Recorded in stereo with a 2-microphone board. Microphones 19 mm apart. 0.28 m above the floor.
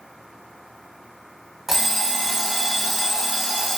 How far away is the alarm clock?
About 1.0 m.